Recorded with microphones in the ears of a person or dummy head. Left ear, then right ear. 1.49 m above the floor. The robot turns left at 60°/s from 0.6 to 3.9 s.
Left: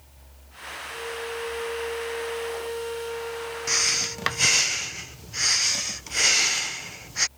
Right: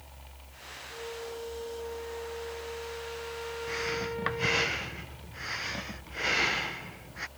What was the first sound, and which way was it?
A flute, 165° left.